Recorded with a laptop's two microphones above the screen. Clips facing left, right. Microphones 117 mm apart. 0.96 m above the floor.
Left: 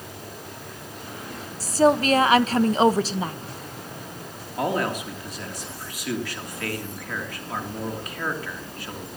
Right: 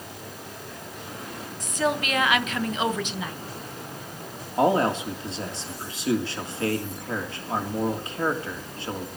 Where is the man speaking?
30° right (ahead or behind), 2.5 m.